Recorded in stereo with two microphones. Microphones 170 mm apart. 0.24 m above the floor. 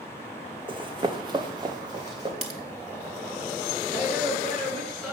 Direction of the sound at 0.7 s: 30° right (ahead or behind).